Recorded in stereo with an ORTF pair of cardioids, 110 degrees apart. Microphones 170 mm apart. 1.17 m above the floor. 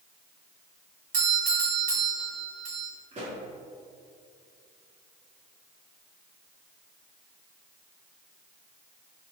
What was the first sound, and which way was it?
A doorbell, 60° right.